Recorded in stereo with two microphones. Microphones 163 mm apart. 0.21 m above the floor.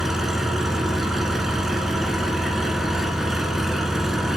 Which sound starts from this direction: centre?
An engine running, at 0.0 s.